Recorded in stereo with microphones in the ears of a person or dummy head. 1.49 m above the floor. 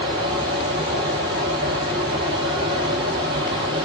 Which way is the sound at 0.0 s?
25° right (ahead or behind).